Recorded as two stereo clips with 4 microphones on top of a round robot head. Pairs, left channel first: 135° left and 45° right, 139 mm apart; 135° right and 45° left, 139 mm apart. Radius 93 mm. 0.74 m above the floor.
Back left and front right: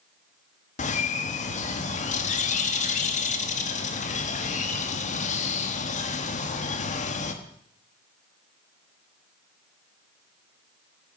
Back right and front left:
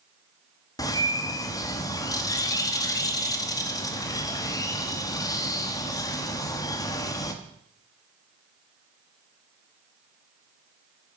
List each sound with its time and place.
0.8 s a bird: 160° left, 1.1 m